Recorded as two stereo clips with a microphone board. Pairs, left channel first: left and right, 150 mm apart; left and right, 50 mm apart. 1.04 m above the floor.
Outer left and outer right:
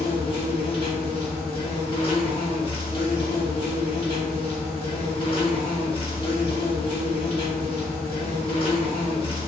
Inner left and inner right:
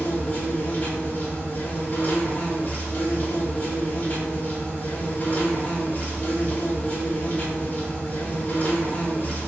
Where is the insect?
35° left (ahead or behind), 0.8 m.